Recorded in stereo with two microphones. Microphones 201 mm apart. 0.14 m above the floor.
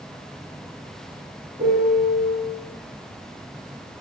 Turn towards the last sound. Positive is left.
turn(degrees=-40)  # may be behind; listen again after turning